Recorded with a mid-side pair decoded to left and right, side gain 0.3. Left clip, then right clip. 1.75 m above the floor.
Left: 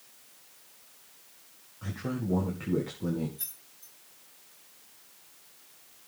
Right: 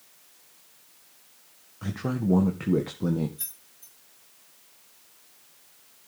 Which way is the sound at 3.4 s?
40° right.